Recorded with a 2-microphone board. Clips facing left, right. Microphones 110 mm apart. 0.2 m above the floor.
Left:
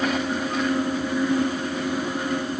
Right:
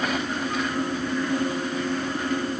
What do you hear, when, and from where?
Only background noise.